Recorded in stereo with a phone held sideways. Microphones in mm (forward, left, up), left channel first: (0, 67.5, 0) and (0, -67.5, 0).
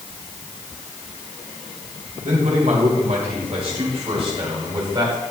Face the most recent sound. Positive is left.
turn(degrees=-35)  # may be behind; listen again after turning